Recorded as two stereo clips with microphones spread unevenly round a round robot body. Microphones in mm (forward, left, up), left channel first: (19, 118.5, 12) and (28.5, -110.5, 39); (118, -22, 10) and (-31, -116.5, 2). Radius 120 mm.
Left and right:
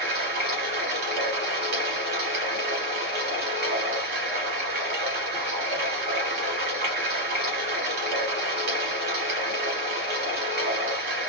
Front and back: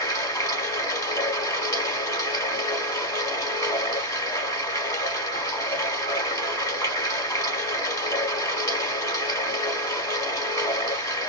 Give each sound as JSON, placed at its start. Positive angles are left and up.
{"t": 0.0, "sound": "running water", "azimuth_deg": -40, "distance_m": 0.9}